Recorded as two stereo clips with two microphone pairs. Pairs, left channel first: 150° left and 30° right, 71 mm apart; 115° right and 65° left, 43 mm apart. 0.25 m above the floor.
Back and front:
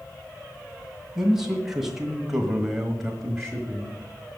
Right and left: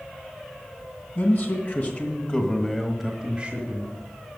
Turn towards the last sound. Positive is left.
turn(degrees=60)